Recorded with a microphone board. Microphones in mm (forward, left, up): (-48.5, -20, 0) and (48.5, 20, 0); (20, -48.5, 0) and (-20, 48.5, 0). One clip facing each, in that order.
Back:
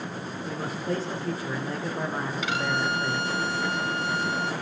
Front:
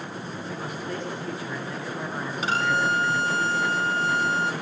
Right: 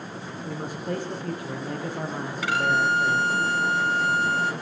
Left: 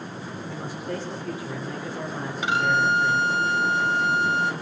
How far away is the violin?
About 0.7 m.